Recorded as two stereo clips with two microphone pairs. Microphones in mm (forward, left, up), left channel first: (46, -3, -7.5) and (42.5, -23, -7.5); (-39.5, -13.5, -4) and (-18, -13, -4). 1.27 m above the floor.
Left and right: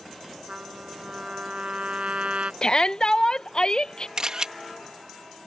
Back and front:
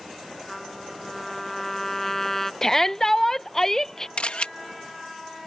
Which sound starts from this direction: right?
A trumpet, at 0.5 s.